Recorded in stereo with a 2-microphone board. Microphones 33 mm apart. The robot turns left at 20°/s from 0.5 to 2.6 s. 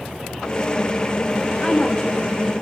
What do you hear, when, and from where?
1.6 s a woman speaking: 25° left (ahead or behind), 1.1 m; by 2.5 s 20° left (ahead or behind), 1.1 m